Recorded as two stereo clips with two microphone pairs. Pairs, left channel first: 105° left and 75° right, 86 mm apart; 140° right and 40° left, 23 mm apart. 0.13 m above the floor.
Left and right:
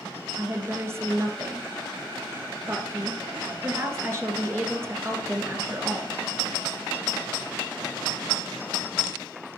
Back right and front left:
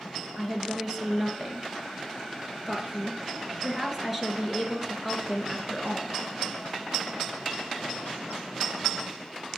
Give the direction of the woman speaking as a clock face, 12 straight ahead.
1 o'clock.